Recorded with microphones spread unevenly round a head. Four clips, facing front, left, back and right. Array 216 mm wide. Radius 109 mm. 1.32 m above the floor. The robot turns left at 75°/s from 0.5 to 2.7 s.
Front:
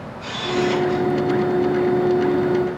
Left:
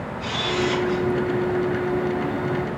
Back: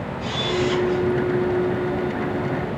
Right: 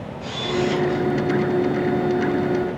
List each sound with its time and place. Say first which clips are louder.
0.2 s a camera shutter: right 1 dB, front 2 dB; 160° right, 4 m; by 1.0 s 160° left, 4 m